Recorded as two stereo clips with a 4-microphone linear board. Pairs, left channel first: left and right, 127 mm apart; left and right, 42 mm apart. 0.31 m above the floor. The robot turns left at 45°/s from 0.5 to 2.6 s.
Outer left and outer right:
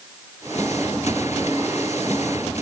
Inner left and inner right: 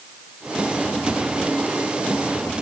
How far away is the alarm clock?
No alarm clock in this recording.